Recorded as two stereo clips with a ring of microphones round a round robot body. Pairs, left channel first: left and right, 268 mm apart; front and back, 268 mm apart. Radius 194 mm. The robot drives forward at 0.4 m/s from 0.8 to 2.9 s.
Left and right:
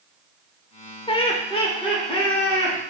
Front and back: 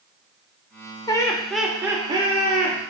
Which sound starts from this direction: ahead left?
Laughter, at 1.1 s.